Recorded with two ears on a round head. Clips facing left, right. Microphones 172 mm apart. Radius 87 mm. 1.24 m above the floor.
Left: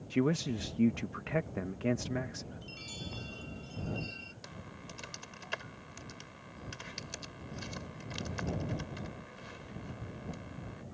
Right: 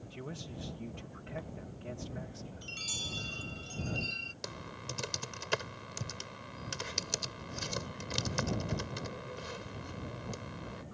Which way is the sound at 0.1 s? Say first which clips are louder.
Left 16 dB; 75° left (ahead or behind).